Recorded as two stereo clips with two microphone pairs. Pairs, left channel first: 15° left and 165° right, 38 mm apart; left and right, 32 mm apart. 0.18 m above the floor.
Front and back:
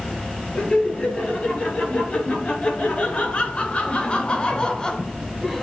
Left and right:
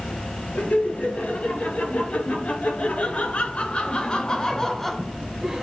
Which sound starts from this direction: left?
Laughter, at 0.6 s.